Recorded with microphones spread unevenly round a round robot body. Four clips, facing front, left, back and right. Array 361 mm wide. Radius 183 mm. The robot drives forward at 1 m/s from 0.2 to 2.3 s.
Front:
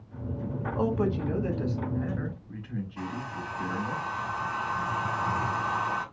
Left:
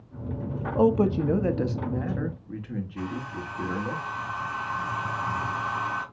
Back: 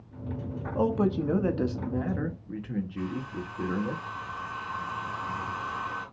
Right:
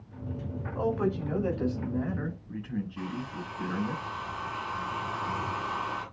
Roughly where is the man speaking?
Left.